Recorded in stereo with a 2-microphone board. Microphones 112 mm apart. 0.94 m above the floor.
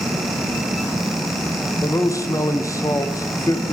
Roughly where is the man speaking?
Left.